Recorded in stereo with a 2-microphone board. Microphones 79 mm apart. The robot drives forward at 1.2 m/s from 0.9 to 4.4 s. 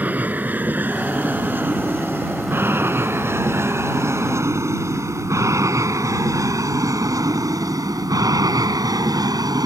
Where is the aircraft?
20° right (ahead or behind); by 9.7 s 60° right (ahead or behind).